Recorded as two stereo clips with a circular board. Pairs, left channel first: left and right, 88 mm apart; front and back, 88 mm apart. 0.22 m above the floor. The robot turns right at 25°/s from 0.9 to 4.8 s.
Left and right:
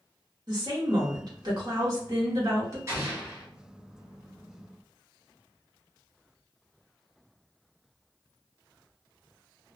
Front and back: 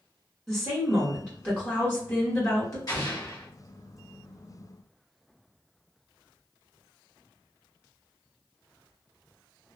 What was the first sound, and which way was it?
A woman speaking, 90° right.